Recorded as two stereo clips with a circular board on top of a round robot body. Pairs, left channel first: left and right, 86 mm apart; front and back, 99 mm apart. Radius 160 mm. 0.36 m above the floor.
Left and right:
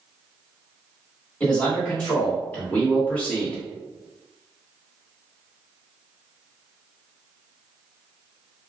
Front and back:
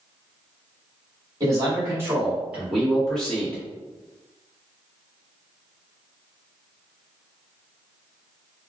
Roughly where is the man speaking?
Behind left.